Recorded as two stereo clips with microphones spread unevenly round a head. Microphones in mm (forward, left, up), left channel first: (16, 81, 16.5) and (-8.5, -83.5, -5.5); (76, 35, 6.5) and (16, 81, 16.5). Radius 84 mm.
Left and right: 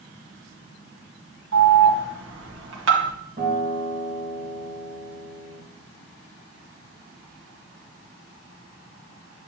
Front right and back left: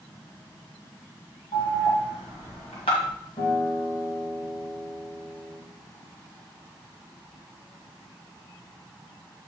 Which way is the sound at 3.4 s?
45° right.